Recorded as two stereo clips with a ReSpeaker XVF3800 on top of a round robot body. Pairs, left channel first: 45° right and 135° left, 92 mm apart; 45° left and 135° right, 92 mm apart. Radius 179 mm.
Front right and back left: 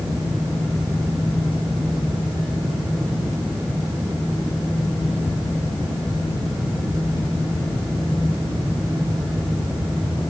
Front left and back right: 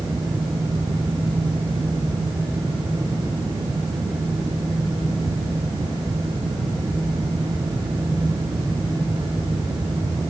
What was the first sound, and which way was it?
Only background noise.